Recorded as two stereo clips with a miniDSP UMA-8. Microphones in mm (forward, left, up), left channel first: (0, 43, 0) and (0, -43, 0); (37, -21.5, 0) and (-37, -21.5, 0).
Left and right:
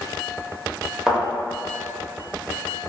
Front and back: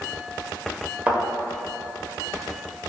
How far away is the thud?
About 0.8 m.